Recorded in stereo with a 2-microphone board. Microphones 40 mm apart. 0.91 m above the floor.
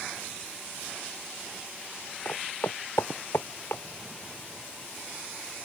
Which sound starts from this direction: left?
Footsteps, at 2.2 s.